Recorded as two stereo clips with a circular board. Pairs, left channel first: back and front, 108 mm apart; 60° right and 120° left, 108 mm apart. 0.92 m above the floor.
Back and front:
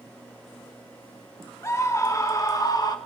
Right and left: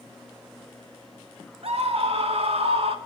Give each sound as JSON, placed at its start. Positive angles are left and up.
{"t": 1.6, "sound": "a scream", "azimuth_deg": 115, "distance_m": 2.0}